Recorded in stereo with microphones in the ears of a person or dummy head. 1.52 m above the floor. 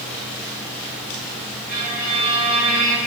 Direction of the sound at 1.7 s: 45° right (ahead or behind).